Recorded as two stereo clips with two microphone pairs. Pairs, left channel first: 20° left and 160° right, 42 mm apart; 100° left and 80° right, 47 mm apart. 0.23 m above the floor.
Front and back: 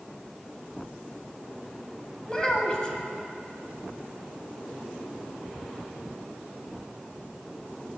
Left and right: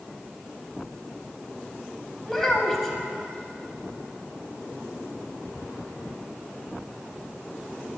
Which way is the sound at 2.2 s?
20° left.